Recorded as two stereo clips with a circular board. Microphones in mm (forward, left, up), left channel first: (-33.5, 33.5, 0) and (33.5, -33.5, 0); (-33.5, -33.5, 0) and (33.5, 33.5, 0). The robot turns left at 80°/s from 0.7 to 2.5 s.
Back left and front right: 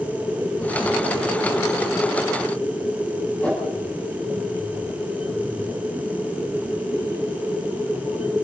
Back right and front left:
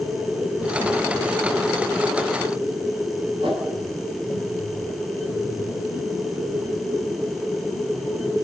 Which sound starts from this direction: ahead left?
A whoosh, at 3.4 s.